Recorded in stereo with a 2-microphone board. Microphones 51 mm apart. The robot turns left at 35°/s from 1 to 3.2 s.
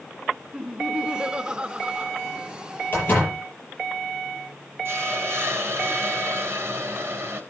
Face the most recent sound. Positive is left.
turn(degrees=-55)  # may be behind; listen again after turning